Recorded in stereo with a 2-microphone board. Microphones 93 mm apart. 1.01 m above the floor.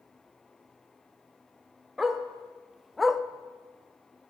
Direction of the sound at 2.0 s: 5° right (ahead or behind).